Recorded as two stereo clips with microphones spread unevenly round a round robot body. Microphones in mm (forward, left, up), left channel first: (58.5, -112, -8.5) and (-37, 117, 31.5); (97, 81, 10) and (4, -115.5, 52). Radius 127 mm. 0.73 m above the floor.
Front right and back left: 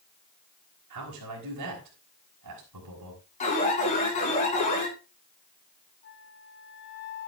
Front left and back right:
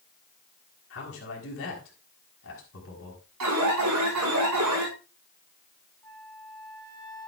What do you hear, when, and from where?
0.9 s a man speaking: 105° left, 5.5 m
3.4 s an alarm: 130° right, 8 m
6.0 s a flute: 10° right, 3.5 m